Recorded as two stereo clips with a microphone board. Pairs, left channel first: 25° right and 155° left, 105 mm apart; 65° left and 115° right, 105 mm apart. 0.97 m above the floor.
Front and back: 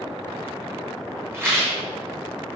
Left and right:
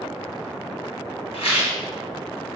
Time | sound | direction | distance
1.3 | a rattle | 90° left | 0.8 m